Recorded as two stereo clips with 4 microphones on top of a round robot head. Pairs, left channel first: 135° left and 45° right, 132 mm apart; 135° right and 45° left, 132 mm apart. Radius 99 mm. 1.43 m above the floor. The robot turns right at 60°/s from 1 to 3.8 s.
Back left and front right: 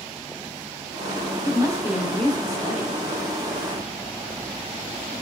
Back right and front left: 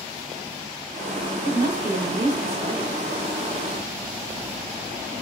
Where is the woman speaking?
5° left, 1.0 m; by 3.0 s 100° left, 1.0 m.